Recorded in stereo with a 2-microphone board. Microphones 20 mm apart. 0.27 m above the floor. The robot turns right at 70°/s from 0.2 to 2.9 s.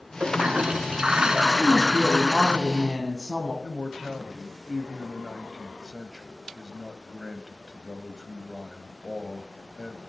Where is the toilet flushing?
120° right, 0.6 m; by 2.6 s 50° left, 0.6 m.